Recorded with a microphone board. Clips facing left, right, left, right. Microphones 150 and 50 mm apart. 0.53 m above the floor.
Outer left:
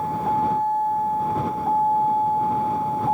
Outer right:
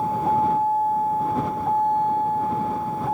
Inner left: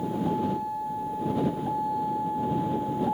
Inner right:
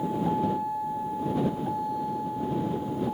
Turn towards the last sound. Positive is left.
turn(degrees=25)  # may be behind; listen again after turning